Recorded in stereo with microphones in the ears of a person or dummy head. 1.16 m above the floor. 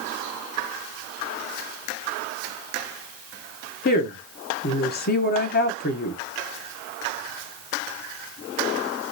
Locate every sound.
3.9 s a woman speaking: 45° left (ahead or behind), 0.9 m